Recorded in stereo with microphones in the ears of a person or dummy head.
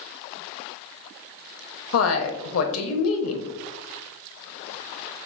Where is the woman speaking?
80° left, 0.7 m.